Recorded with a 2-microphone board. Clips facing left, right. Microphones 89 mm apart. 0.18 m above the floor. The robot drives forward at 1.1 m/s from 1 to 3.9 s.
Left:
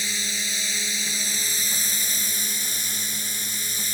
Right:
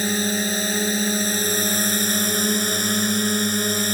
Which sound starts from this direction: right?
A drone, at 0.0 s.